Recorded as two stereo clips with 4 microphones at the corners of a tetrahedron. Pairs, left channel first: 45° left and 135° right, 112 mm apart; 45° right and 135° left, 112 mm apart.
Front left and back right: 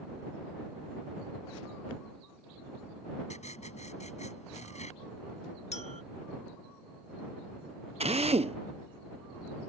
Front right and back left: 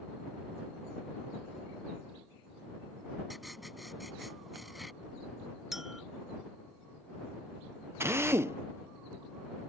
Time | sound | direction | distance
3.3 | writing | 45° left | ?
5.7 | a clink | 50° left | ?
8.0 | a drill | 160° right | ?